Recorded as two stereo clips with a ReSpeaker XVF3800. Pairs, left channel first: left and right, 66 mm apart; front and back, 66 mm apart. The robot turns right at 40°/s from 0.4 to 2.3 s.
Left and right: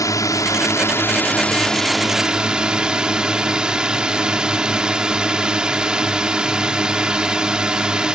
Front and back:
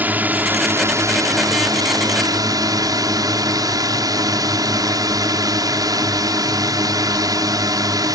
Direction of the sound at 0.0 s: 115° left.